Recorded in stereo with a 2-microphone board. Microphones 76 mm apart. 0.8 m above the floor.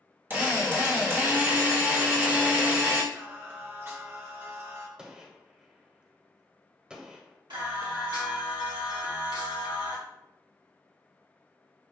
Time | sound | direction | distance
0.3 | a drill | 25° right (ahead or behind) | 1.3 m
3.1 | singing | 30° right (ahead or behind) | 0.7 m
5.0 | a gunshot | 10° right (ahead or behind) | 0.7 m
7.5 | singing | 75° right (ahead or behind) | 1.3 m